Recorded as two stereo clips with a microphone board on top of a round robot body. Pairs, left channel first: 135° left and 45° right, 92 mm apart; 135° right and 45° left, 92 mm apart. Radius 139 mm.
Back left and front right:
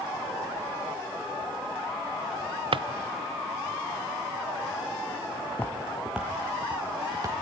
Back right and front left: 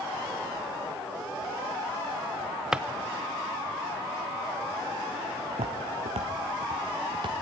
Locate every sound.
2.7 s a drawer: 35° right, 0.6 m
5.5 s footsteps: 65° left, 1.3 m; by 7.3 s 10° left, 2.5 m